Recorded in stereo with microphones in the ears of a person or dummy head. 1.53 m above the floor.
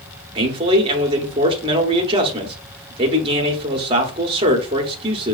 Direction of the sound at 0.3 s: 30° right (ahead or behind).